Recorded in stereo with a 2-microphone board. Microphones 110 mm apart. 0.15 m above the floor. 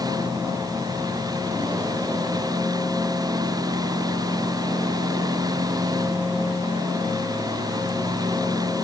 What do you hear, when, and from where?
Only background noise.